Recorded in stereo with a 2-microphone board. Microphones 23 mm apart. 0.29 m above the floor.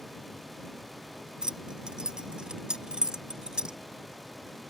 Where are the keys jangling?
35° right (ahead or behind).